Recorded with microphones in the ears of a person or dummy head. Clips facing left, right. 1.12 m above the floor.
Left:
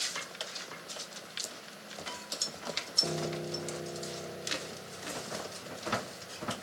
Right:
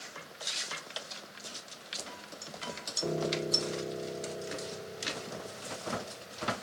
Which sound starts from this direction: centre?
A piano, at 3.0 s.